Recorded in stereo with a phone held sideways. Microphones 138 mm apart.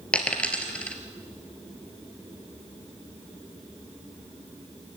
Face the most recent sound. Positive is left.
turn(degrees=10)  # may be behind; listen again after turning